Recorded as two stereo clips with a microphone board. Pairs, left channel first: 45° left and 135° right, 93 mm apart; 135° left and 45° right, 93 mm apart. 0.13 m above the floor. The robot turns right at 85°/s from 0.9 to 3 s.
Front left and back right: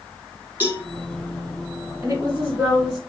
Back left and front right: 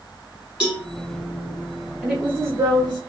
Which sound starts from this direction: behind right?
A woman speaking, at 2.0 s.